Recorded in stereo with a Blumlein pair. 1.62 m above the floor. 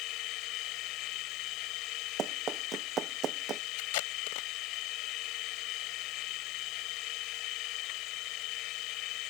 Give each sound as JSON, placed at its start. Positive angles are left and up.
{"t": 0.0, "sound": "a machine running", "azimuth_deg": 40}
{"t": 2.2, "sound": "running footsteps", "azimuth_deg": -25}
{"t": 3.8, "sound": "tape being pulled", "azimuth_deg": 50}